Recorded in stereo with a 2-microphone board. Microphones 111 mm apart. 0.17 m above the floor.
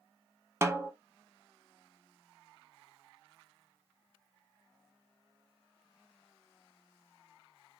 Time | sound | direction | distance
0.6 | a snare drum | 25° right (ahead or behind) | 0.6 m